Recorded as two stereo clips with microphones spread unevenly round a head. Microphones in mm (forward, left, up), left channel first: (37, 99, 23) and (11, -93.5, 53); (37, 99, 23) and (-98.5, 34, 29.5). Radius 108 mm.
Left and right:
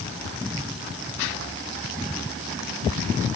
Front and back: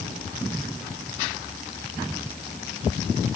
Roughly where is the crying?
No crying in this recording.